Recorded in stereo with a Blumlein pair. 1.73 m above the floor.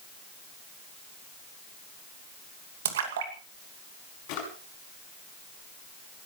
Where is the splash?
60° right, 2.5 m.